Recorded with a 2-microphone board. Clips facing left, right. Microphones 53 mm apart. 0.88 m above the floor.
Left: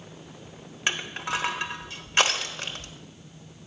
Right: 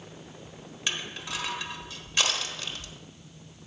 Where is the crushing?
45° left (ahead or behind), 0.8 m.